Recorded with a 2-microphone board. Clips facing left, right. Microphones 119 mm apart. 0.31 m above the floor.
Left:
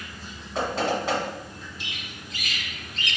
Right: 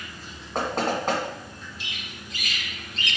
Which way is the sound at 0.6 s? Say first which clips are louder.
Even; 50° right (ahead or behind).